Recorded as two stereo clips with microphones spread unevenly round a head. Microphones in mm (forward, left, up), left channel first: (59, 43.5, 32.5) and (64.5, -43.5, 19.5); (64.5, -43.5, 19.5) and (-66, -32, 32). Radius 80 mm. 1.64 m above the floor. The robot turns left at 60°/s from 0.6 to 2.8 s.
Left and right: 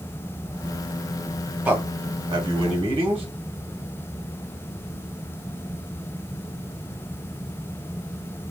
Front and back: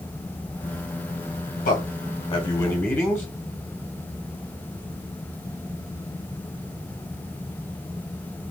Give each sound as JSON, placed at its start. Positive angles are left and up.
{"t": 1.6, "sound": "a man speaking", "azimuth_deg": -10, "distance_m": 1.1}